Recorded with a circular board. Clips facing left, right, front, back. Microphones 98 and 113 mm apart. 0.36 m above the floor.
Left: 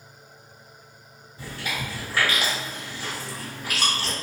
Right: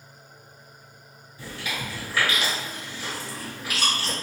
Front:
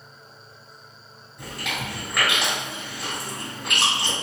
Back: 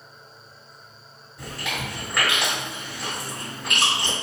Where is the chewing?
90° left, 1.9 m.